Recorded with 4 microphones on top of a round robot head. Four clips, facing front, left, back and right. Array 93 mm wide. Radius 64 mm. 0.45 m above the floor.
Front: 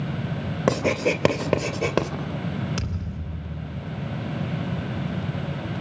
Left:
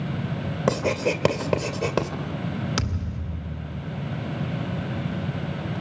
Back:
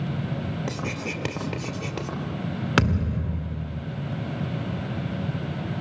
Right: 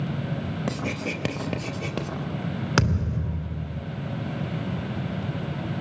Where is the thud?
145° right, 0.9 m.